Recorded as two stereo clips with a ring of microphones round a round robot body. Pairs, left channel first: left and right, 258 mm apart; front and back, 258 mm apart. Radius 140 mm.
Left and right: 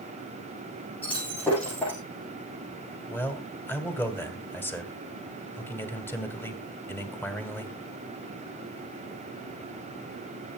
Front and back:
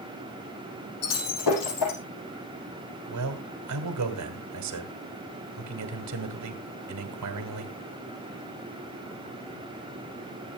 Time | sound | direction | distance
1.0 | breaking glass | 5° left | 7.5 m
3.1 | a man speaking | 170° left | 2.5 m